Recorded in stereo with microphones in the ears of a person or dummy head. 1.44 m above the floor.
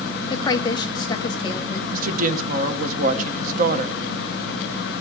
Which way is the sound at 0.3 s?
25° left (ahead or behind).